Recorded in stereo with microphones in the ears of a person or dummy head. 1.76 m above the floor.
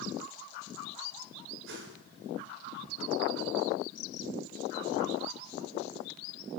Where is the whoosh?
75° right (ahead or behind), 7 m.